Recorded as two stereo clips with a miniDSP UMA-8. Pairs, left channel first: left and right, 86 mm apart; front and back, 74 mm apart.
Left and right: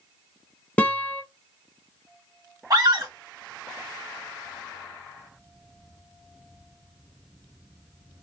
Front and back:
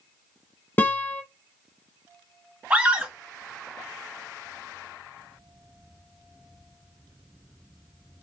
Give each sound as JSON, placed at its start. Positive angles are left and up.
{"t": 0.8, "sound": "a guitar", "azimuth_deg": 30, "distance_m": 0.6}
{"t": 2.7, "sound": "a scream", "azimuth_deg": -115, "distance_m": 1.2}